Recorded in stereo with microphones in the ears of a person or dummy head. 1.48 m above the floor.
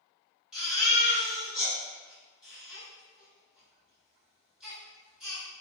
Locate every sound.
0.5 s a baby crying: centre (ahead or behind), 1.8 m